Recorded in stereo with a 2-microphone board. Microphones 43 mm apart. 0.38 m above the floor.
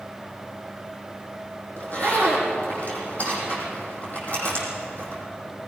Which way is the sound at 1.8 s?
35° left (ahead or behind).